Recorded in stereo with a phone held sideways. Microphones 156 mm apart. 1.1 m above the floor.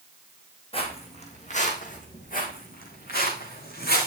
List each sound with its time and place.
0.7 s footsteps: 35° left (ahead or behind), 3 m; by 4.1 s 70° left (ahead or behind), 4 m